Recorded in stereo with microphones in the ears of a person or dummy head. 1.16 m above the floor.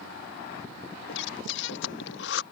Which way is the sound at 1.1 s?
65° left (ahead or behind).